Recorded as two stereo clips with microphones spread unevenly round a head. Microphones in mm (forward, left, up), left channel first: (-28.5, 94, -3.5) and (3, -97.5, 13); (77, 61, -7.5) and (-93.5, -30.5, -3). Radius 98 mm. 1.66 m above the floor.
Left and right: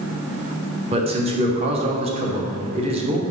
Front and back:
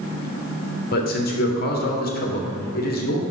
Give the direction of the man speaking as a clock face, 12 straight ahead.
1 o'clock.